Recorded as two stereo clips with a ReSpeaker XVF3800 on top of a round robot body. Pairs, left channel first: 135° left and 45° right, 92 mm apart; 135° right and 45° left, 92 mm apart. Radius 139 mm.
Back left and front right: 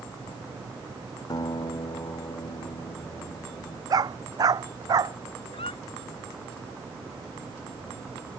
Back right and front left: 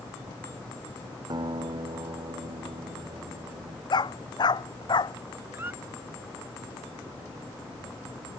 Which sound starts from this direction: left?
A guitar, at 1.3 s.